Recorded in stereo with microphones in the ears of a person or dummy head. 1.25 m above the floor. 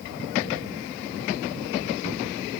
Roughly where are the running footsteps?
I don't hear running footsteps.